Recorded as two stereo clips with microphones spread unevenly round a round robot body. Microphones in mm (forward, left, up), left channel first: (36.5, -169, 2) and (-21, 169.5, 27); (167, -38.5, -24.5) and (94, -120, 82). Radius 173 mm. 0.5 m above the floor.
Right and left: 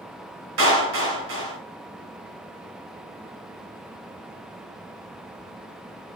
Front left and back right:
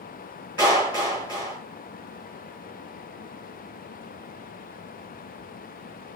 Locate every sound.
0.6 s a clap: 140° left, 5.5 m